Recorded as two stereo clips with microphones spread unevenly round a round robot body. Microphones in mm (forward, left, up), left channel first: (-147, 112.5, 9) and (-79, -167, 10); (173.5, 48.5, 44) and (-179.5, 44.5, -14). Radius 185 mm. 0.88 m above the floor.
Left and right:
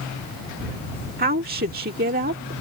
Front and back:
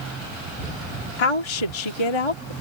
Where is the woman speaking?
10° right.